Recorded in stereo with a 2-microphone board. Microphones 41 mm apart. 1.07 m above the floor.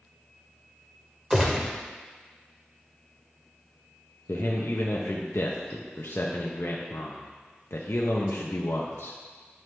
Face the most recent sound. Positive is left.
turn(degrees=75)  # may be behind; listen again after turning